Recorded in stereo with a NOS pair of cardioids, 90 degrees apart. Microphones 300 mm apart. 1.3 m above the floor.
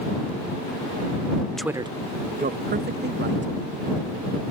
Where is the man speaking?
Straight ahead; by 3.5 s 35° right.